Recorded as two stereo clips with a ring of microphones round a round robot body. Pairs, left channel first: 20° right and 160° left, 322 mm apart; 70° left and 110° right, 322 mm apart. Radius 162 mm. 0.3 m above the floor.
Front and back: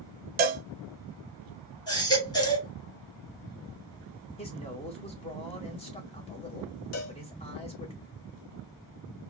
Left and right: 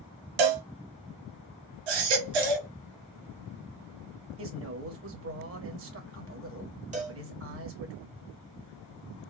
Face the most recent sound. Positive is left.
turn(degrees=-50)